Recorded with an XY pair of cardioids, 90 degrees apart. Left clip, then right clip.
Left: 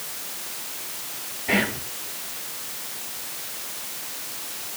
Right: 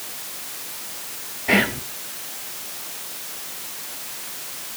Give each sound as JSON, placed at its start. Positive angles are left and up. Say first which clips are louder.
{"t": 1.5, "sound": "whispering", "louder": "right 4 dB", "azimuth_deg": -35, "distance_m": 1.0}